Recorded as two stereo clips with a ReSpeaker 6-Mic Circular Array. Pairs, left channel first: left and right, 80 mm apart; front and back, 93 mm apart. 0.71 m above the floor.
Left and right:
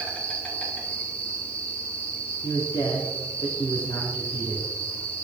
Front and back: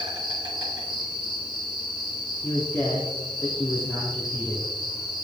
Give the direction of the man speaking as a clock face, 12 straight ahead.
10 o'clock.